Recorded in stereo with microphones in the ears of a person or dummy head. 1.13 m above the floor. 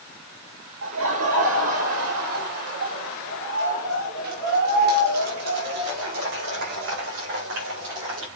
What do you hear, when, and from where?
0.8 s laughter: 70° right (ahead or behind), 1.3 m